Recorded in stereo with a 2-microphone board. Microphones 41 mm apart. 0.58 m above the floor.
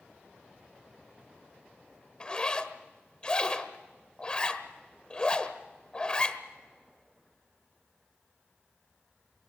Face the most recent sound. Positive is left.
turn(degrees=25)  # may be behind; listen again after turning